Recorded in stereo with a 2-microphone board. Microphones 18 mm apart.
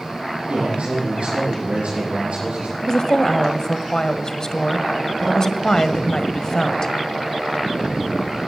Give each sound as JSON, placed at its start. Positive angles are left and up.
{"t": 0.5, "sound": "a man speaking", "side_deg": -85, "distance_m": 9.0}
{"t": 2.8, "sound": "a woman speaking", "side_deg": 35, "distance_m": 1.4}